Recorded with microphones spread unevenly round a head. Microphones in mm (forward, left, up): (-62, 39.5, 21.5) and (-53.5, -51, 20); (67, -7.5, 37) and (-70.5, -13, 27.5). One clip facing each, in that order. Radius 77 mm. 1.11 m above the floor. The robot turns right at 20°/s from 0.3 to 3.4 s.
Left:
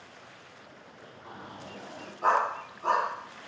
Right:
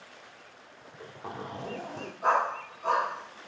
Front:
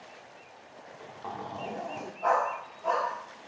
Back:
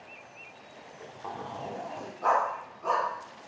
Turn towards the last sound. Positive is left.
turn(degrees=160)